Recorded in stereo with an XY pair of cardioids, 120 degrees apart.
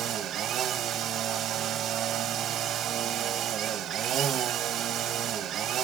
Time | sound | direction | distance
0.0 | a machine running | 60° right | 1.5 m